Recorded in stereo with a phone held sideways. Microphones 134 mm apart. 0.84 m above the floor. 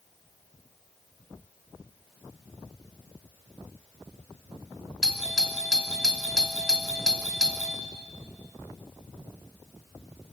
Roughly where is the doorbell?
Centre.